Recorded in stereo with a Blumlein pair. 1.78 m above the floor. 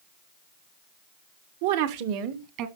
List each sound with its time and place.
1.6 s a woman speaking: 55° right, 1.7 m; by 2.7 s 40° right, 2 m